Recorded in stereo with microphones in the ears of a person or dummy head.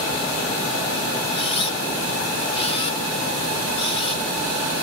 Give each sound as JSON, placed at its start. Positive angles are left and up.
{"t": 1.3, "sound": "a camera shutter", "side_deg": 35, "distance_m": 1.0}